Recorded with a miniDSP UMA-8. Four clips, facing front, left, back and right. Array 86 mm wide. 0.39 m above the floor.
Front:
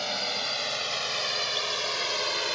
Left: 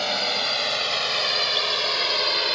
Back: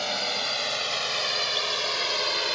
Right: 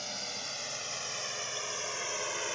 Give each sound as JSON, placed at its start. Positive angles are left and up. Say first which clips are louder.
{"t": 0.0, "sound": "a drone", "louder": "left 16 dB, back 2 dB", "azimuth_deg": 100}